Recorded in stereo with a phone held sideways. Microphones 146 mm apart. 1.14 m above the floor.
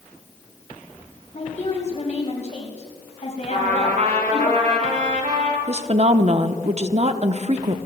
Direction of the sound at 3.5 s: 60° right (ahead or behind).